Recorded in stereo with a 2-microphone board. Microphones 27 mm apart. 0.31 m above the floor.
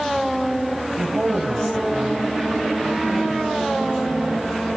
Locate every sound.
1.0 s a woman speaking: 35° right (ahead or behind), 1.2 m; by 4.7 s 45° right (ahead or behind), 4 m